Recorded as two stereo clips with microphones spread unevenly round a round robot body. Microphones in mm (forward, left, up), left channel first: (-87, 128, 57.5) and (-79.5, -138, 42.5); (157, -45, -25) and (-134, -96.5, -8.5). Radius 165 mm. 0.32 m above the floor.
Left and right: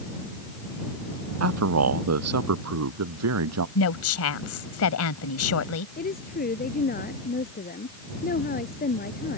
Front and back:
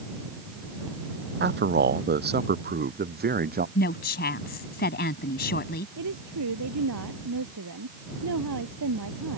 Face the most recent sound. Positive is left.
turn(degrees=145)